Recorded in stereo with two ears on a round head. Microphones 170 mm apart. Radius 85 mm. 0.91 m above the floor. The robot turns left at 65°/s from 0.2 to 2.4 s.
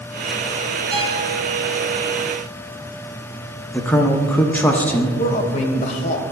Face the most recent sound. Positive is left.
turn(degrees=35)  # may be behind; listen again after turning